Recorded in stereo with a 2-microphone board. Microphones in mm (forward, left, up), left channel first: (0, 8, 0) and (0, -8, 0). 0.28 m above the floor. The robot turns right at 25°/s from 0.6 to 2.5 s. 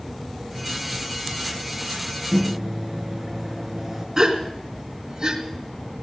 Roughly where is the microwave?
Centre.